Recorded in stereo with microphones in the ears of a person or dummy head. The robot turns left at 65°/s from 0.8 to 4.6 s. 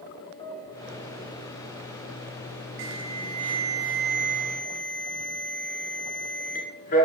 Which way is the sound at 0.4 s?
165° left.